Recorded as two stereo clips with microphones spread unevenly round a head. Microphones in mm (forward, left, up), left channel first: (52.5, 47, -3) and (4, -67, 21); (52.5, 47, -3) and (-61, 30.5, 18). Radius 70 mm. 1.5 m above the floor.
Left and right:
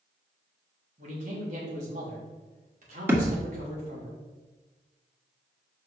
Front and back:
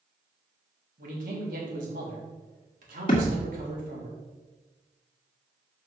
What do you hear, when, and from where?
1.0 s a man speaking: 155° right, 3 m
3.1 s a thud: 50° right, 1.7 m